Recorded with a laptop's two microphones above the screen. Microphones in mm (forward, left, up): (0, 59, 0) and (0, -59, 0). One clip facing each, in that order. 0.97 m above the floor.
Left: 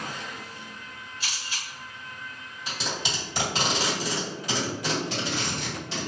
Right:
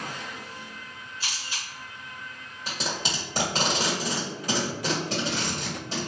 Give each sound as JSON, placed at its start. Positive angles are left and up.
{"t": 1.2, "sound": "a camera shutter", "side_deg": -35, "distance_m": 1.6}
{"t": 2.7, "sound": "tape being pulled", "side_deg": -40, "distance_m": 1.6}